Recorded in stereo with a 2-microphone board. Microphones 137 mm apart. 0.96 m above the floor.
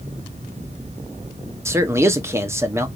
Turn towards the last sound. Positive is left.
turn(degrees=-20)  # may be behind; listen again after turning